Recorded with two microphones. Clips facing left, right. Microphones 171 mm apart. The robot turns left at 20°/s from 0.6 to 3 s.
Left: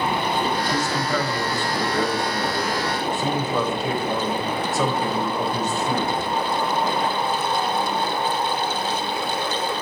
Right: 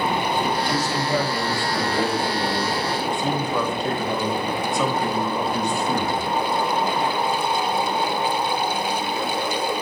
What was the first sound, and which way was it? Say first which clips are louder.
A man speaking: right 1 dB; 145° right.